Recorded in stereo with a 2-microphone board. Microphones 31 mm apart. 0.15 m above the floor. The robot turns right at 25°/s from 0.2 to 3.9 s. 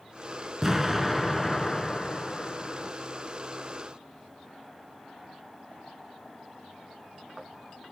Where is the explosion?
20° right, 0.7 m; by 2.9 s 40° left, 0.7 m.